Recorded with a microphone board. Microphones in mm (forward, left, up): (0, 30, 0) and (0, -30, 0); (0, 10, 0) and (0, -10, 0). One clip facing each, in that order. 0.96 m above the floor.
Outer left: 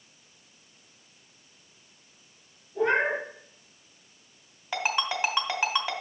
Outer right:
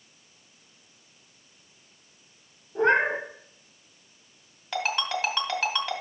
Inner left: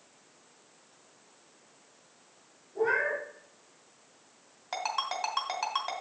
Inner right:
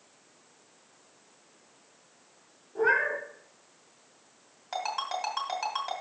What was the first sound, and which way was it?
A cat meowing, 50° right (ahead or behind).